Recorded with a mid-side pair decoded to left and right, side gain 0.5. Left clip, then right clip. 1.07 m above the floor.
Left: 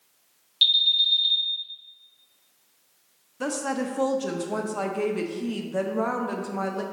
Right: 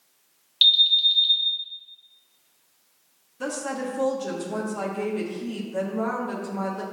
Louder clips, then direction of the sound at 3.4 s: Left 1 dB; 25° left.